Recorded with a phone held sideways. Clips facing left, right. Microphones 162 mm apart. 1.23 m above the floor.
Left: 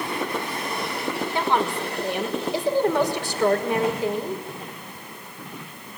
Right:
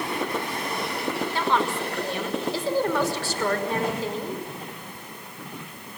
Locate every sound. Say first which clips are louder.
1.3 s a woman speaking: left 2 dB; 15° left (ahead or behind), 5.5 m